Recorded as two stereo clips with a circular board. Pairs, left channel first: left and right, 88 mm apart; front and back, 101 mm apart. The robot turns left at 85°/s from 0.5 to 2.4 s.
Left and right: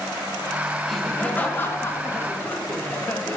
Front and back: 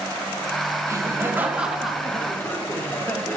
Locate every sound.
0.8 s laughter: straight behind, 1.6 m; by 3.4 s 50° left, 1.6 m